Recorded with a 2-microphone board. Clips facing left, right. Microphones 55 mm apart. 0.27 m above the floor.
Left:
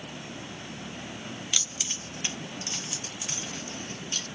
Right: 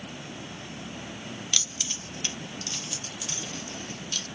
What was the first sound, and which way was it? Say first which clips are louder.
Keys jangling: right 1 dB; 10° left (ahead or behind).